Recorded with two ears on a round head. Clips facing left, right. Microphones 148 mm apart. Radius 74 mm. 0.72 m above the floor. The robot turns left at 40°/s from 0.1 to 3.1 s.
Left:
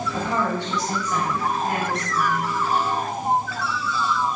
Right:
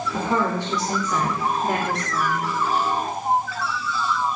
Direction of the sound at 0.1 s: 45° right.